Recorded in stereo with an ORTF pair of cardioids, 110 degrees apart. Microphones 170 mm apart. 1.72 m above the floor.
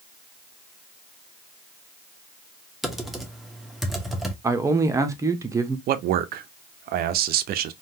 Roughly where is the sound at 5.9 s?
Ahead right.